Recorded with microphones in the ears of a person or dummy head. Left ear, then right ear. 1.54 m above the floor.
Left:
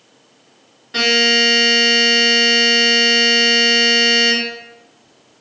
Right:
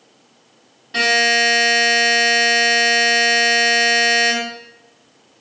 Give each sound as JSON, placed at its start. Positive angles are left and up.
{"t": 0.9, "sound": "a buzzer", "side_deg": 5, "distance_m": 1.1}